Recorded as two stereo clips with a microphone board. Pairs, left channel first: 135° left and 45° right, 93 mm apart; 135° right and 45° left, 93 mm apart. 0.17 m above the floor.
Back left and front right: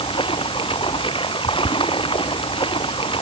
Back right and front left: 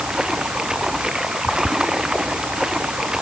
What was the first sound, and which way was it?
Running water, 130° left.